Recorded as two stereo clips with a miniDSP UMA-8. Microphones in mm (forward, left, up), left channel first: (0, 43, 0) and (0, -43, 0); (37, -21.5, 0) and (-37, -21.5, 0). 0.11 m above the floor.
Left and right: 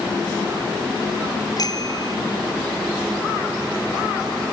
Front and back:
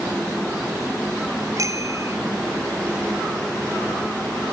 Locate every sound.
1.6 s a bicycle bell: 135° left